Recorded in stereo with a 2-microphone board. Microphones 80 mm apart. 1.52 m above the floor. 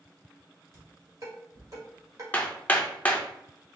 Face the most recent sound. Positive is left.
turn(degrees=15)  # may be behind; listen again after turning